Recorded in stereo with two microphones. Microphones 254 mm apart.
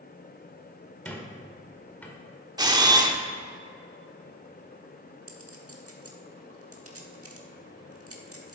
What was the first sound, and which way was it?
A squeak, 5° left (ahead or behind).